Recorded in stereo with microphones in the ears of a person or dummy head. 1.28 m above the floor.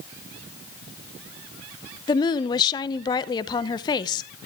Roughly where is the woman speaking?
Left.